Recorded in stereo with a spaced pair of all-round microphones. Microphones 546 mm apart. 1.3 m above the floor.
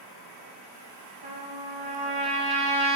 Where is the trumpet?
45° right (ahead or behind), 1.0 m.